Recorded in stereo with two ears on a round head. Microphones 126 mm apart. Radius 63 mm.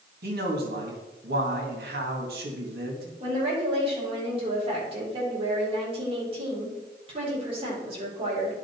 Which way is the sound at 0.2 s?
80° right.